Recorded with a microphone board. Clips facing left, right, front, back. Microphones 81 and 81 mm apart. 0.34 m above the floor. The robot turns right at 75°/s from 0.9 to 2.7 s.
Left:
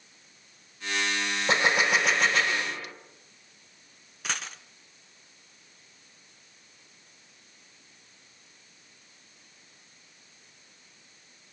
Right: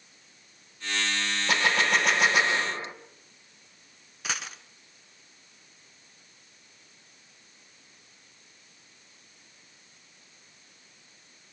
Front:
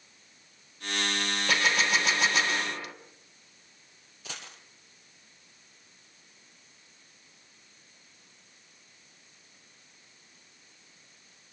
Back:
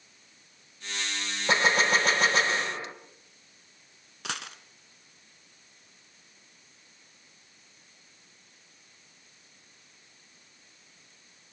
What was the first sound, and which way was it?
A gunshot, 135° left.